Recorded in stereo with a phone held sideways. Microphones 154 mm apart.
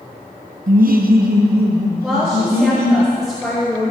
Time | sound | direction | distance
0.7 | laughter | 55° right (ahead or behind) | 0.5 m
2.0 | a woman speaking | centre (ahead or behind) | 2.5 m